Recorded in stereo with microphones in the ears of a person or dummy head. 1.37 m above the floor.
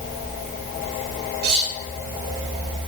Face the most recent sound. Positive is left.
turn(degrees=-70)  # may be behind; listen again after turning